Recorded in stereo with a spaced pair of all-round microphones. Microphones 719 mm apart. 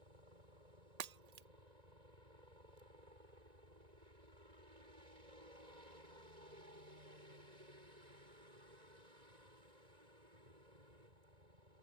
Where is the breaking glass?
65° right (ahead or behind).